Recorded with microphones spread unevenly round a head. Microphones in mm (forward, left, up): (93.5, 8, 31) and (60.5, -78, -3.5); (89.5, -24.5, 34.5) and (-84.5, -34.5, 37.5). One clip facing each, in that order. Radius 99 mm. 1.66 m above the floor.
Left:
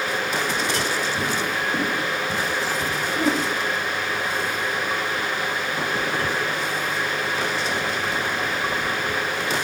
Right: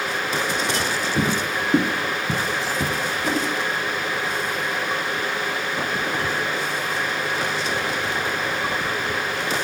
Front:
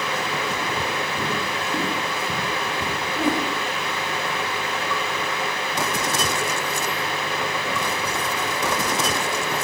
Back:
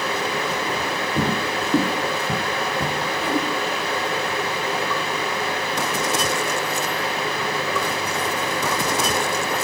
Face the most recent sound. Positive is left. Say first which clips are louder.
# left 4 dB, front 2 dB
turn(degrees=60)